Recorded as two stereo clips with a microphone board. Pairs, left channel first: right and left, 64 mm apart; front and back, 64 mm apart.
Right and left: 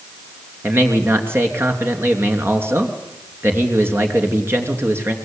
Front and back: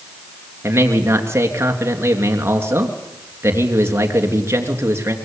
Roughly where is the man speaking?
Behind left.